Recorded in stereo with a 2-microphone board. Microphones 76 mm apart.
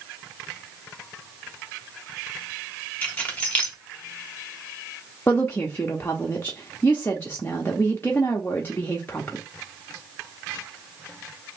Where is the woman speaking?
30° left (ahead or behind), 0.6 m.